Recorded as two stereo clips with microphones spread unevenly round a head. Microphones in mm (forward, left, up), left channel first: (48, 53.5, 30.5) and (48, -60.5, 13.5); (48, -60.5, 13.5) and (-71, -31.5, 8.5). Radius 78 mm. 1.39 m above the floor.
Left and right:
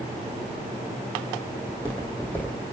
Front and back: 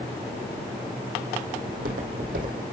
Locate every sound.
1.6 s footsteps: 165° left, 3.5 m